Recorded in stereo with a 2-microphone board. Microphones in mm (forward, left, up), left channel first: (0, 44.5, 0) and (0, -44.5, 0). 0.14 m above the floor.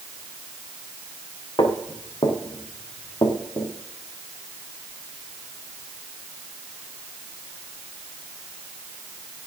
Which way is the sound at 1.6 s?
65° left (ahead or behind).